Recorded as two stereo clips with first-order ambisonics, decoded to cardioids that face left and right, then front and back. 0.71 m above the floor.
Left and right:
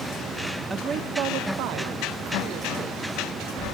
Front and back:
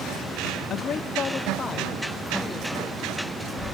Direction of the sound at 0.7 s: 20° right.